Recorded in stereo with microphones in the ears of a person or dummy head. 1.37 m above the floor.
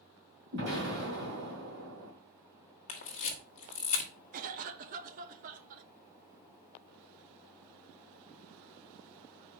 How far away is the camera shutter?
About 1.3 m.